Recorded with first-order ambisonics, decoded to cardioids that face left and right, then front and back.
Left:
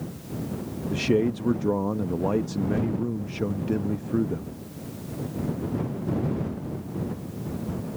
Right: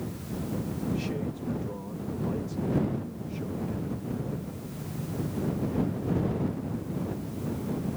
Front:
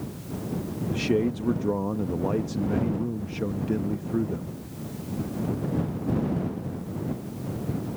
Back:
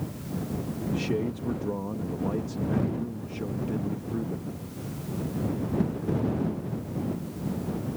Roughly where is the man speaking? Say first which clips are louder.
Left 14 dB, front 5 dB; left.